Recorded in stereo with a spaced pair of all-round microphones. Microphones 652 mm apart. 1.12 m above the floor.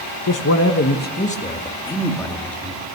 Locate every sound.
0.3 s a man speaking: 30° left (ahead or behind), 0.9 m; by 2.9 s centre (ahead or behind), 2.5 m